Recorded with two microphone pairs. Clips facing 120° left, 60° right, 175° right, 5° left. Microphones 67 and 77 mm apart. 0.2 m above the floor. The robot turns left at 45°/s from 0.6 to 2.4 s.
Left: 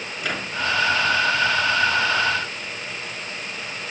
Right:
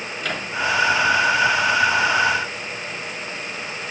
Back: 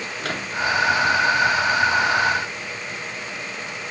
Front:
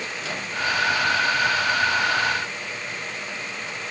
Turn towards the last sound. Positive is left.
turn(degrees=120)